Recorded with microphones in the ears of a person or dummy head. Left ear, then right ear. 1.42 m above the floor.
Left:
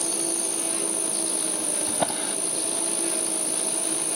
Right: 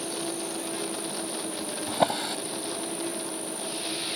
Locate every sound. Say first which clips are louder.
0.0 s an insect: left 3 dB; 30° left (ahead or behind)
1.9 s a drawer: right 4 dB; 10° right (ahead or behind)